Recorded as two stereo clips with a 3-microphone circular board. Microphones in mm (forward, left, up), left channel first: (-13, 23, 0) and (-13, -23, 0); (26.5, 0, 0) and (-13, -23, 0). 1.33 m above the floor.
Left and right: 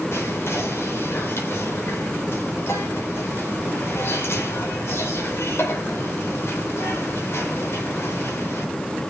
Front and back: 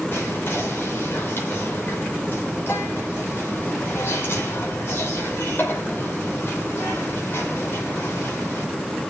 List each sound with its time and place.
0.1 s whispering: 65° left, 5.5 m